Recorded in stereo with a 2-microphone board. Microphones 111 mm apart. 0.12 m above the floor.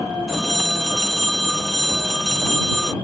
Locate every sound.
0.3 s a phone ringing: centre (ahead or behind)